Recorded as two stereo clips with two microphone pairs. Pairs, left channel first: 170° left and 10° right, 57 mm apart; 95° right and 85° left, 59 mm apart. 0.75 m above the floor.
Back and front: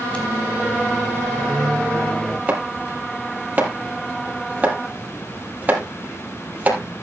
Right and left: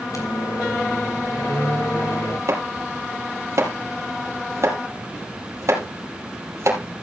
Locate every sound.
0.1 s a microwave: 120° right, 3 m
2.5 s chopping: 50° left, 3 m